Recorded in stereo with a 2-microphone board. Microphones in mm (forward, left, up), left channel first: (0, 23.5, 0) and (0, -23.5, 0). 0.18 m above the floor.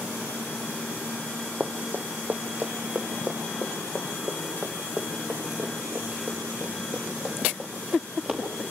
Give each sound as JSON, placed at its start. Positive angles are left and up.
{"t": 1.6, "sound": "running footsteps", "side_deg": -40, "distance_m": 1.7}